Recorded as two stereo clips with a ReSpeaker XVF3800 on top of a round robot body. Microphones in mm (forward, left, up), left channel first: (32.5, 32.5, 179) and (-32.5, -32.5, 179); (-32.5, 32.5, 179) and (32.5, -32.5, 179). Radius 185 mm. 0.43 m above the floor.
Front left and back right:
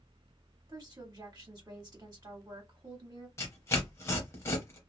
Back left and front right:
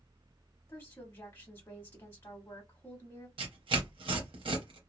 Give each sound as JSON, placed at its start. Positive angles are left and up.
{"t": 0.7, "sound": "a woman speaking", "azimuth_deg": -170, "distance_m": 1.2}
{"t": 3.4, "sound": "tearing paper", "azimuth_deg": -15, "distance_m": 0.7}